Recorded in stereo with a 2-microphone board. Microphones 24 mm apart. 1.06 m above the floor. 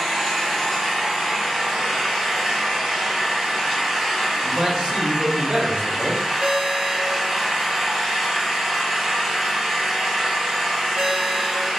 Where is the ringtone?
70° right (ahead or behind), 0.7 m.